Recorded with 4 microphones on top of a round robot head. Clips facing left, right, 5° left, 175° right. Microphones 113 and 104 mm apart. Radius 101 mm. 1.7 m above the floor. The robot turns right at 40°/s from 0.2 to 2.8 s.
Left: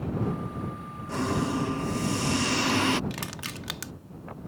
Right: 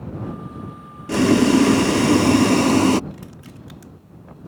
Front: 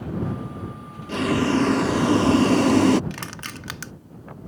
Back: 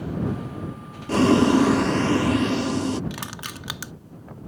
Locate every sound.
1.1 s boiling: 110° right; by 3.0 s 40° right
3.1 s crushing: 110° left